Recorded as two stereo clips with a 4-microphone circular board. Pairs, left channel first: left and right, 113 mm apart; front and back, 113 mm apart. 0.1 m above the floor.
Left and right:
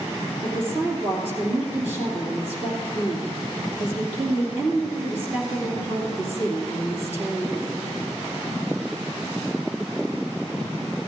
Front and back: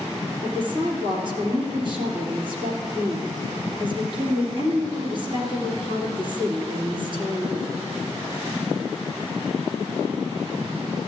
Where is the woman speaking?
155° right, 2.5 m.